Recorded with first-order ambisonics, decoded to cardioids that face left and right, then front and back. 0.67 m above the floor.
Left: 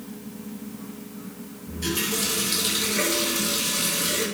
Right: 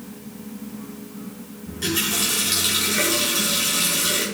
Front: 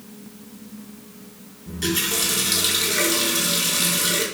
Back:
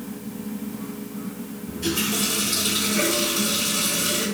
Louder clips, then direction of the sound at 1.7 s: Right 3 dB, front 2 dB; 30° right.